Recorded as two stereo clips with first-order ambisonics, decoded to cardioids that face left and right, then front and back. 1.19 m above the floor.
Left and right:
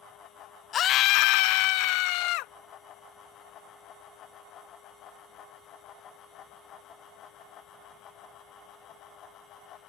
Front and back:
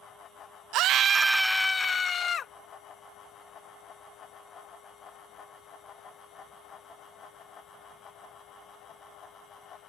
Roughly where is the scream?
Behind left.